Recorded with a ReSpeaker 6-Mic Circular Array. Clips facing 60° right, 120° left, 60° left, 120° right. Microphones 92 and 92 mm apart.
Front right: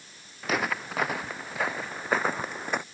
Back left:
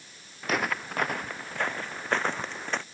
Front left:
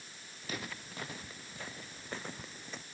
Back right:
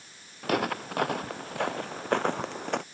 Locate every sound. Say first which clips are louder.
0.4 s footsteps: even, back right 15 dB; 150° right; by 2.8 s 140° right